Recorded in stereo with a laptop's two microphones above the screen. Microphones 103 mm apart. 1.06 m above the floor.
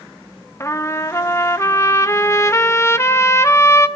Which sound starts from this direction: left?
A trumpet, at 0.6 s.